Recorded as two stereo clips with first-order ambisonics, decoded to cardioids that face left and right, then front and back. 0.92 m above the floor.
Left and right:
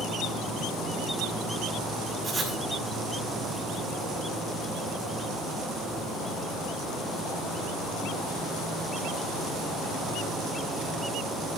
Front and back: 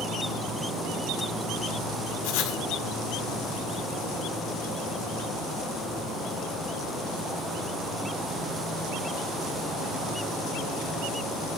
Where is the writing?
10° right, 2.0 m.